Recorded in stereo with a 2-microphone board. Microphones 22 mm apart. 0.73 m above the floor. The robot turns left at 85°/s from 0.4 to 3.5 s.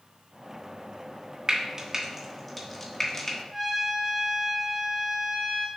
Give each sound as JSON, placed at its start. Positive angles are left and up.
{"t": 1.5, "sound": "frying", "side_deg": -30, "distance_m": 1.2}
{"t": 3.5, "sound": "a trumpet", "side_deg": -15, "distance_m": 3.0}